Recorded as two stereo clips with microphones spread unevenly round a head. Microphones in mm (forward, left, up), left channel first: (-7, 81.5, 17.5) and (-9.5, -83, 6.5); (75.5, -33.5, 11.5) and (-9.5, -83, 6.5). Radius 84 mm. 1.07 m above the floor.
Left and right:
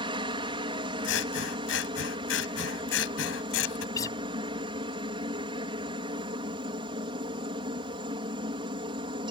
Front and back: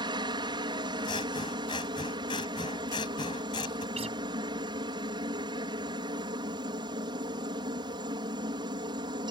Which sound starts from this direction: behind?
A guitar, at 4.0 s.